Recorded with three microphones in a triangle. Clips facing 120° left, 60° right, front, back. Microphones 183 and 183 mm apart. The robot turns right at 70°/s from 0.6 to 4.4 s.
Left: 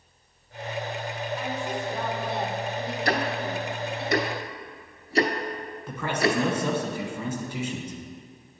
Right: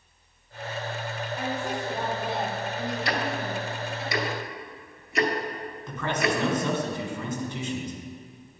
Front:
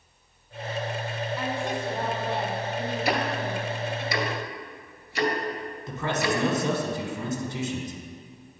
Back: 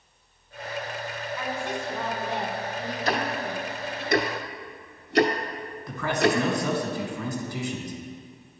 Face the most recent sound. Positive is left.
turn(degrees=45)